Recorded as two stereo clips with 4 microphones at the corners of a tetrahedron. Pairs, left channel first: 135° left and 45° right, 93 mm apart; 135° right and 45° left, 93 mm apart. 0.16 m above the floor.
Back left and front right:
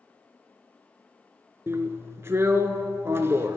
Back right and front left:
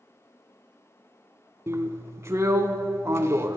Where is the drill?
Straight ahead, 0.7 m.